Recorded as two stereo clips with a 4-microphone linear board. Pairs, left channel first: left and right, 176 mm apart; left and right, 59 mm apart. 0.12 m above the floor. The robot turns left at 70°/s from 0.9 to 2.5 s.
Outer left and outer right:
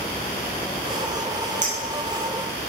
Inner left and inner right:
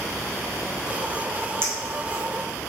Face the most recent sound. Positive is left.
turn(degrees=10)  # may be behind; listen again after turning